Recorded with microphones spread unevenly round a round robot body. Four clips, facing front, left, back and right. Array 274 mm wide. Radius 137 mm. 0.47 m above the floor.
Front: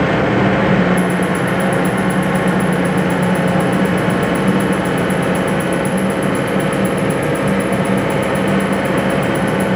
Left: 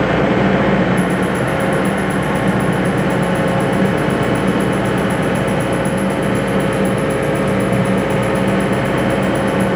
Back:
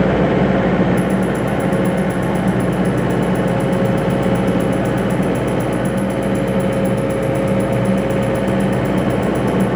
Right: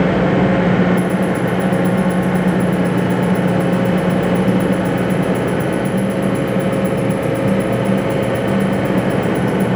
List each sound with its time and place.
1.0 s ticking: 95° right, 1.4 m